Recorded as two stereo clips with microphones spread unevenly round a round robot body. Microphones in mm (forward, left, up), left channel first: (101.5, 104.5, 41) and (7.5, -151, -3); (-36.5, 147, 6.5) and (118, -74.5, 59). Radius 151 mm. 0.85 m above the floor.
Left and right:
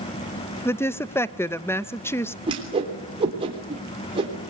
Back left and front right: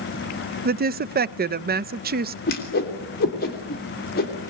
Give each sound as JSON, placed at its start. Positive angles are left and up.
{"t": 0.7, "sound": "a woman speaking", "azimuth_deg": -20, "distance_m": 0.7}
{"t": 2.5, "sound": "a whoosh", "azimuth_deg": 180, "distance_m": 3.0}